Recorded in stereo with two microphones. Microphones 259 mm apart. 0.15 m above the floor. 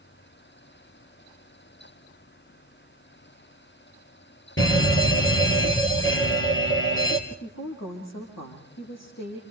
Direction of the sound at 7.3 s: 80° left.